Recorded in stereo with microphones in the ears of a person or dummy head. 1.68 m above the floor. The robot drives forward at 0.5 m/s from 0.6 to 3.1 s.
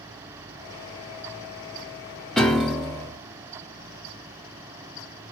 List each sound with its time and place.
2.4 s a piano: 5° right (ahead or behind), 0.6 m; by 3.2 s centre (ahead or behind), 0.8 m